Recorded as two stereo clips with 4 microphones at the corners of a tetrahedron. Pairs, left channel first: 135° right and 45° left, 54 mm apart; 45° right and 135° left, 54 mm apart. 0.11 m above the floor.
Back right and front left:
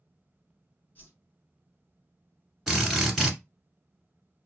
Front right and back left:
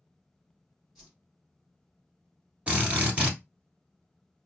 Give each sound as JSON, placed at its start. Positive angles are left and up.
{"t": 0.9, "sound": "a whoosh", "azimuth_deg": -150, "distance_m": 1.4}
{"t": 2.7, "sound": "a drill", "azimuth_deg": 140, "distance_m": 1.7}